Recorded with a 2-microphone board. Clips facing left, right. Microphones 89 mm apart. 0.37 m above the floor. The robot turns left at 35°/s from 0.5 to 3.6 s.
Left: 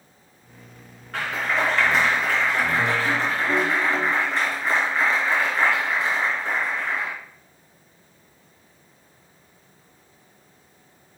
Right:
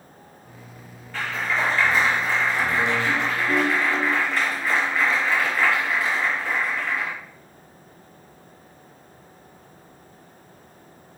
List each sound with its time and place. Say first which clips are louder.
1.1 s a clap: left 1 dB; 110° left, 3.5 m; by 7.1 s 25° left, 3.5 m